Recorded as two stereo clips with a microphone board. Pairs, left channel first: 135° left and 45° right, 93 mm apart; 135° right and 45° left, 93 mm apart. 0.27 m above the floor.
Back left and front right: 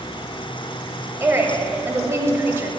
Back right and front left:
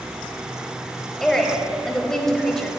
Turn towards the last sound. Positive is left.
turn(degrees=-55)